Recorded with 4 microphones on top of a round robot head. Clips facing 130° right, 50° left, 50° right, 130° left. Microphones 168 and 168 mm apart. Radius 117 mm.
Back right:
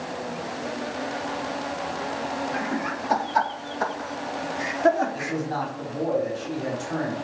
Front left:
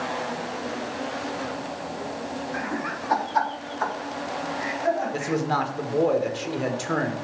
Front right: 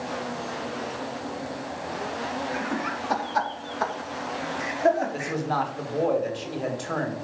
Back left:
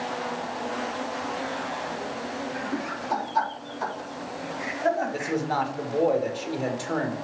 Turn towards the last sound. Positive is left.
turn(degrees=50)